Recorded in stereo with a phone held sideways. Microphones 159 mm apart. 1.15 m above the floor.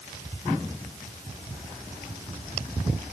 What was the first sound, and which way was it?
Only background noise.